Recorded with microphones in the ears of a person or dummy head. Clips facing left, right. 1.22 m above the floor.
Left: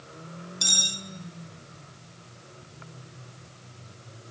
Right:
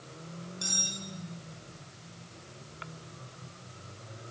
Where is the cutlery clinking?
50° left (ahead or behind), 0.6 m.